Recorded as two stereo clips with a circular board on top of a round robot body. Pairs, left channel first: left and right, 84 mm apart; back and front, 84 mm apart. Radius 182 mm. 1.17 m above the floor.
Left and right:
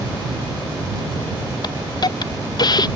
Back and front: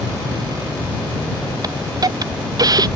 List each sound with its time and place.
1.6 s a hiss: 45° left